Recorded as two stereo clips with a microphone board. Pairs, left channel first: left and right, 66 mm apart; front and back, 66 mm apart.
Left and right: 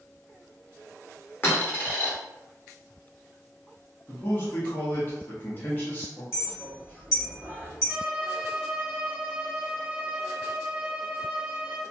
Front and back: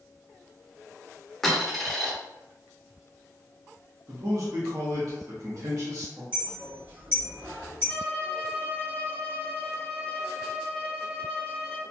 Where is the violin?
65° right, 0.6 m.